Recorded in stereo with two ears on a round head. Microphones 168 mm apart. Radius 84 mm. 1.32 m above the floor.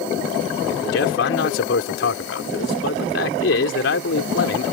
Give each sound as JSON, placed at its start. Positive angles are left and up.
{"t": 0.9, "sound": "a man speaking", "side_deg": 75}